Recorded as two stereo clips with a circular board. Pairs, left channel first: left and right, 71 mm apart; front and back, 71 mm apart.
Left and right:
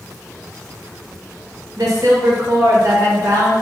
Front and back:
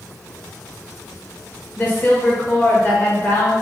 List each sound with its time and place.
1.8 s a woman speaking: 60° right, 0.8 m